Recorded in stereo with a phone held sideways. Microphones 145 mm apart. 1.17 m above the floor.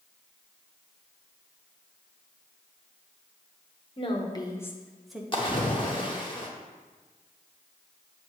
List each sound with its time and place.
4.0 s a woman speaking: 40° left (ahead or behind), 1.0 m; by 5.2 s 5° right (ahead or behind), 0.9 m
5.3 s a splash: 35° left (ahead or behind), 1.0 m